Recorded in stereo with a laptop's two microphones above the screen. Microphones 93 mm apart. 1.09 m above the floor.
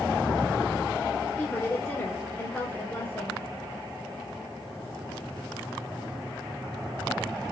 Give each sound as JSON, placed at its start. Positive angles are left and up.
{"t": 1.4, "sound": "a woman speaking", "side_deg": 10, "distance_m": 3.0}